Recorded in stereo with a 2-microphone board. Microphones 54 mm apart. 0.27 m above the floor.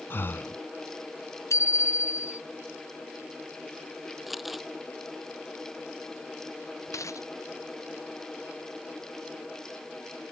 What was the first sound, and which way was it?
Breathing, 45° left (ahead or behind).